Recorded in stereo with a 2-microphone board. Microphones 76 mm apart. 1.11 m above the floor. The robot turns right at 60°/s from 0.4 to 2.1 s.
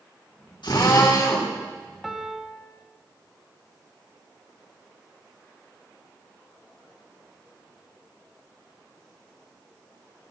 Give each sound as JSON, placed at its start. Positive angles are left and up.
{"t": 0.6, "sound": "a drill", "azimuth_deg": 90, "distance_m": 5.5}
{"t": 2.0, "sound": "a piano", "side_deg": 0, "distance_m": 1.3}